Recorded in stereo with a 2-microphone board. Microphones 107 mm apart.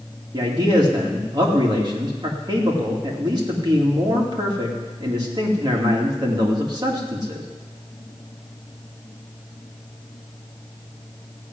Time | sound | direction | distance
0.3 | a man speaking | 40° right (ahead or behind) | 2.5 m